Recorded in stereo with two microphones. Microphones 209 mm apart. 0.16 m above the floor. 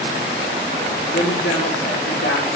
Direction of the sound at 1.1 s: 35° left (ahead or behind).